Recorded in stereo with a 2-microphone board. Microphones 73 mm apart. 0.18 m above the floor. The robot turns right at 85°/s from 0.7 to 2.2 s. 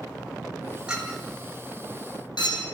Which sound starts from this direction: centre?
A clink, at 0.9 s.